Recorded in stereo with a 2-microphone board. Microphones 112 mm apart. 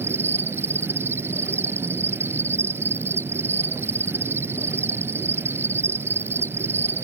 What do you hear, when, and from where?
0.0 s an insect: 20° right (ahead or behind)